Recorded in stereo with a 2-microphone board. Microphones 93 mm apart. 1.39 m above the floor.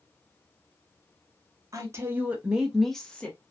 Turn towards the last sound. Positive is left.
turn(degrees=15)  # may be behind; listen again after turning